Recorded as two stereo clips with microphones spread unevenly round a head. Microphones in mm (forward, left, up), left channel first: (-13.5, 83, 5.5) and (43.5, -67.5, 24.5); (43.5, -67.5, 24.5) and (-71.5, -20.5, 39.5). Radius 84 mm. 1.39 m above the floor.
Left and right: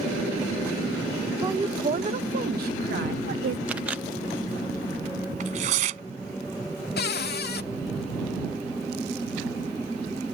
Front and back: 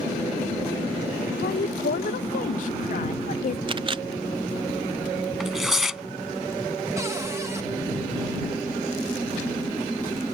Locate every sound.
1.4 s a woman speaking: 5° left; by 3.6 s 50° right
3.7 s a camera shutter: 150° right
5.4 s tearing paper: 115° right
7.0 s a cupboard door: 85° left